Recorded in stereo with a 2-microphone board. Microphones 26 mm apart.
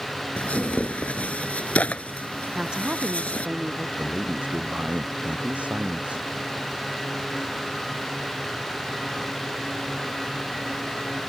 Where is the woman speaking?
40° right (ahead or behind).